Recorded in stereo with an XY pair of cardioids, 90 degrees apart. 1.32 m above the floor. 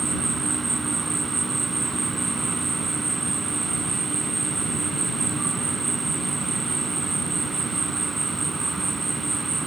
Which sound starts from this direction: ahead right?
An insect, at 0.0 s.